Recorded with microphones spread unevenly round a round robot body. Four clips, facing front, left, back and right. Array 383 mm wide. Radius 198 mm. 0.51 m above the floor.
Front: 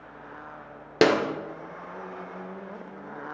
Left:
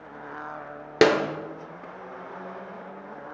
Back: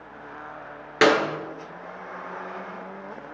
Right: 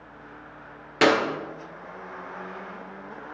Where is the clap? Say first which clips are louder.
Left 1 dB, back 2 dB; 70° left, 1.5 m.